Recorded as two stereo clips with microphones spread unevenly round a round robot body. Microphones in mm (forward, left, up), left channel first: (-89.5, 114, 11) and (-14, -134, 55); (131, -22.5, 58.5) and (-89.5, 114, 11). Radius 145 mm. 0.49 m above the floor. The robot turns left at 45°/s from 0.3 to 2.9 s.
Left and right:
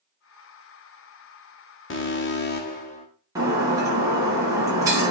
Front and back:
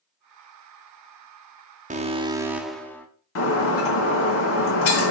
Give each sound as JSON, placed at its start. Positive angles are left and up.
{"t": 1.9, "sound": "an alarm", "azimuth_deg": 105, "distance_m": 1.3}
{"t": 3.4, "sound": "breaking glass", "azimuth_deg": 5, "distance_m": 2.0}